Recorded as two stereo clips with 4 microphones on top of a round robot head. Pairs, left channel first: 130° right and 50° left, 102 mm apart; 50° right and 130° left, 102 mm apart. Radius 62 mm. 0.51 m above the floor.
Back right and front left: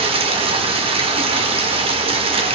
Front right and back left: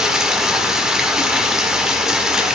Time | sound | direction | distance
0.0 | running water | 45° left | 1.7 m